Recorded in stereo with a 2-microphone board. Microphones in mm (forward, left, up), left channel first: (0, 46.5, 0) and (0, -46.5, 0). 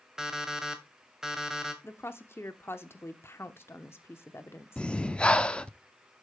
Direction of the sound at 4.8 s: 10° left (ahead or behind).